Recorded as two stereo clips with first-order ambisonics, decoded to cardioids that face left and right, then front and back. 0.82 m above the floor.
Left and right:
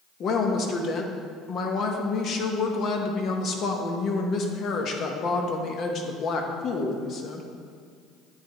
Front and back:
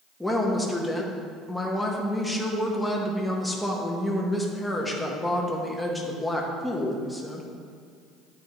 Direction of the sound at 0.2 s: 90° left.